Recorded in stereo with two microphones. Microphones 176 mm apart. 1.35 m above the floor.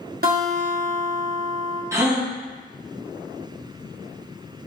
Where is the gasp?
15° right (ahead or behind), 0.7 m.